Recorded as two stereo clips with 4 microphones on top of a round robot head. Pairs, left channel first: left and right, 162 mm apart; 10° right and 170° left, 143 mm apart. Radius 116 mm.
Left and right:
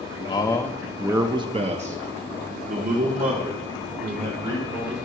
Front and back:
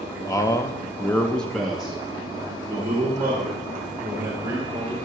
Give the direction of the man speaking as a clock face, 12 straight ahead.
11 o'clock.